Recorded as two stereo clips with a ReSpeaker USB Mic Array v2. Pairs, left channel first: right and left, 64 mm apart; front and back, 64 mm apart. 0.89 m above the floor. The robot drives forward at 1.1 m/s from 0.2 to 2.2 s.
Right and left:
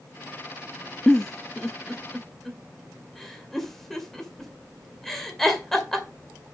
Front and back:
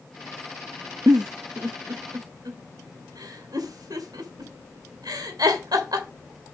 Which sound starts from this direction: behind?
A giggle, at 1.1 s.